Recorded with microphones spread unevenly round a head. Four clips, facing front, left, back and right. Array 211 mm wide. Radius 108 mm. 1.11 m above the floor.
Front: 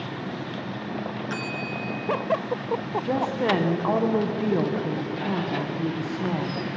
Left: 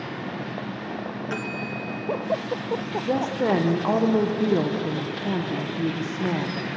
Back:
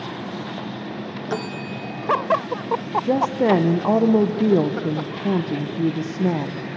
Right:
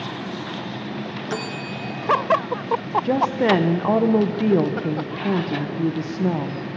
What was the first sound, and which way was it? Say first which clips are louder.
A bell: right 3 dB, back 3 dB; 160° right.